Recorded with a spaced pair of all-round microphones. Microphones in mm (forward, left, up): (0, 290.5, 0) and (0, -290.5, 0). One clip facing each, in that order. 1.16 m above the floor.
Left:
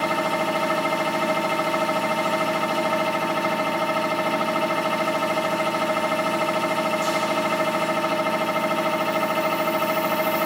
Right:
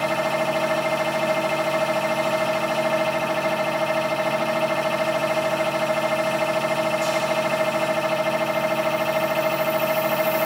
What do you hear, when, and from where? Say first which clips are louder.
0.0 s a machine running: right 1 dB; 15° right (ahead or behind), 1.0 m